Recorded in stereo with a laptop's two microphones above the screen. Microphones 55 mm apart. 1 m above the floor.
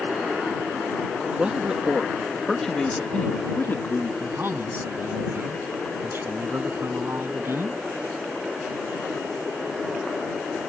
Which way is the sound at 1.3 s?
20° right (ahead or behind).